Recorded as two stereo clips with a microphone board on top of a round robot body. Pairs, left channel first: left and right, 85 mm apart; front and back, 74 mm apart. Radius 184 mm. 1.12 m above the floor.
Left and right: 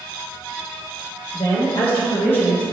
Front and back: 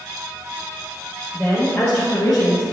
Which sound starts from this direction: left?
A woman speaking, at 1.3 s.